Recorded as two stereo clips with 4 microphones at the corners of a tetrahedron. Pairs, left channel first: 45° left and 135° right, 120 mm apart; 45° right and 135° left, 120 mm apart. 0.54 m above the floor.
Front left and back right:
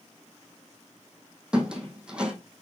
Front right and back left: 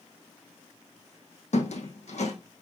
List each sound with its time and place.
1.5 s a squeak: 55° right, 1.3 m